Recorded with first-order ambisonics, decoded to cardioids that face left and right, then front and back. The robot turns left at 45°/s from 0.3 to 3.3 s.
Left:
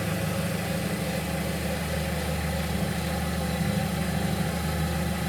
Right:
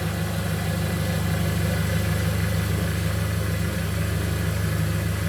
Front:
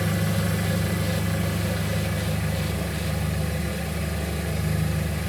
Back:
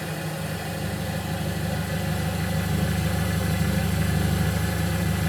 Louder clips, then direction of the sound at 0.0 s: Even, front 4 dB; 15° right.